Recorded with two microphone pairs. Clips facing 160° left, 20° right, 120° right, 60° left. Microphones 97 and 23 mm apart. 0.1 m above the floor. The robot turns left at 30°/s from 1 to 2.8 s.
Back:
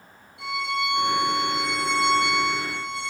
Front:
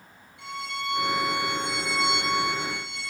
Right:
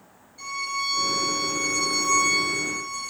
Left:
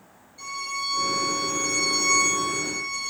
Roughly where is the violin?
Behind left.